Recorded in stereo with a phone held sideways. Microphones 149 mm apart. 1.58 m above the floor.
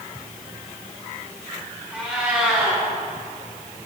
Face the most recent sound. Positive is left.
turn(degrees=-10)  # may be behind; listen again after turning